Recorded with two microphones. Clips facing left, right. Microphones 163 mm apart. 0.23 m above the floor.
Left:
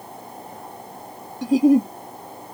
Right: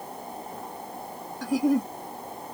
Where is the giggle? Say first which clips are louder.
Left 8 dB; 25° left (ahead or behind).